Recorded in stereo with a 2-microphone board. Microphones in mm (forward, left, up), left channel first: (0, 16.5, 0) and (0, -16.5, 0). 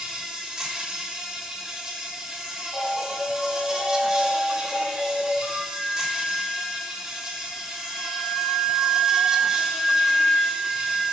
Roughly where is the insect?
Centre.